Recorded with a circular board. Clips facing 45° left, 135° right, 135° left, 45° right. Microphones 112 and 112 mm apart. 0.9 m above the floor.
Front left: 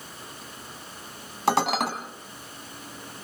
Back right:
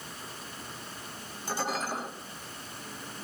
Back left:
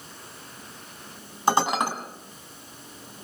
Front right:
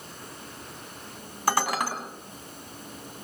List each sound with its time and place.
1.5 s dishes clattering: 65° left, 4.5 m